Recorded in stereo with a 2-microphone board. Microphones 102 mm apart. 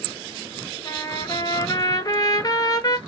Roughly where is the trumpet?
Left.